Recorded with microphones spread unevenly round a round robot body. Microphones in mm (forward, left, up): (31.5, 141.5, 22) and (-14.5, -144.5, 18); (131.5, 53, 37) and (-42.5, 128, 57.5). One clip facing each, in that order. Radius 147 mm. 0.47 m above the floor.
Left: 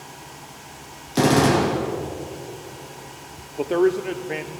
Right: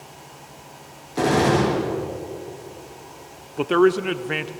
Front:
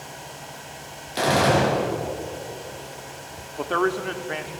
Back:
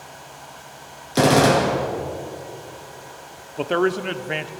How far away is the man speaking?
About 0.8 m.